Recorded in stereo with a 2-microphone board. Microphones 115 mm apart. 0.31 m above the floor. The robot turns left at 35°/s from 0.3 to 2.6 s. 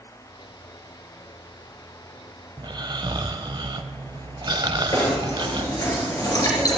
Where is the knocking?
35° left (ahead or behind), 4 m.